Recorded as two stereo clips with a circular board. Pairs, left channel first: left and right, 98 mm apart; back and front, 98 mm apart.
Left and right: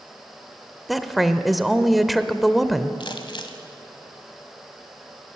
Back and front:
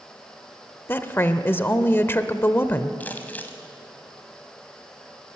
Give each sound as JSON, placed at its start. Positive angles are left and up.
{"t": 0.9, "sound": "a woman speaking", "azimuth_deg": -175, "distance_m": 0.9}
{"t": 3.0, "sound": "crumpling", "azimuth_deg": 110, "distance_m": 1.7}